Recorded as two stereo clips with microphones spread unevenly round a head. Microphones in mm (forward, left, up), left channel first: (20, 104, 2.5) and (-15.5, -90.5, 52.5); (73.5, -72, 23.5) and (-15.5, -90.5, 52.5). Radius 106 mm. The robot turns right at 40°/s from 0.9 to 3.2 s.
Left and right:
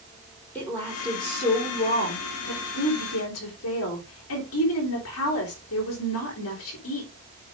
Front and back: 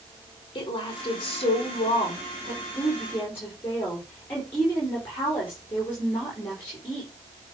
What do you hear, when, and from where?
0.6 s a woman speaking: 5° right, 4.5 m; by 7.1 s 90° left, 4.5 m